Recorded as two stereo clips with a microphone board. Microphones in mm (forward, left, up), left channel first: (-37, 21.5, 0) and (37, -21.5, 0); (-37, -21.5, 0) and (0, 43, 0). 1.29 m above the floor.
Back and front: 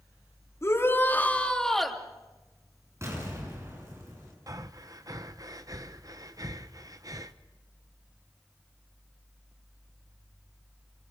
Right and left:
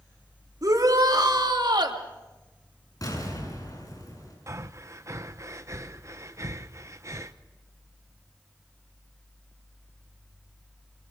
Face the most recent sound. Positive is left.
turn(degrees=15)